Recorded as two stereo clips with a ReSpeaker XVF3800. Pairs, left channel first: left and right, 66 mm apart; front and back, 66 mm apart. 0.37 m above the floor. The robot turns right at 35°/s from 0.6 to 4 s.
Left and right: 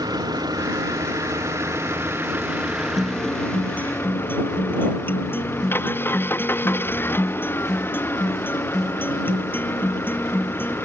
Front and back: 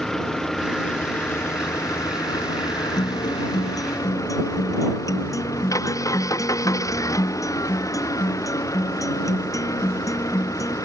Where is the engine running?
85° right; by 10.9 s 35° left.